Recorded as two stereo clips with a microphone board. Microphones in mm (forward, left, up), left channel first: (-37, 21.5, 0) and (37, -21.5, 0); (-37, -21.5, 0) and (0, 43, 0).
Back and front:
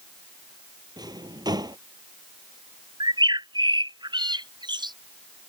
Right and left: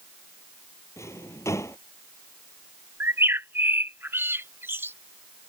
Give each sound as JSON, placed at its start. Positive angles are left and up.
{"t": 1.0, "sound": "a drawer", "azimuth_deg": -70}
{"t": 3.0, "sound": "a bird", "azimuth_deg": 0}